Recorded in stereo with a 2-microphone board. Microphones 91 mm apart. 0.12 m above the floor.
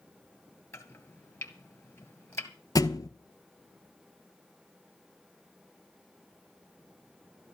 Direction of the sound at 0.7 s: 30° left (ahead or behind).